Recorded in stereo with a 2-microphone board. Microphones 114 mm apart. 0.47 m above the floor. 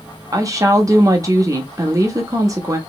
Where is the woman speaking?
30° right (ahead or behind), 0.8 m.